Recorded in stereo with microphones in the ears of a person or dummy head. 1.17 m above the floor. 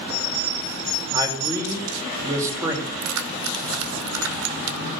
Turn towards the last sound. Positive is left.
turn(degrees=-80)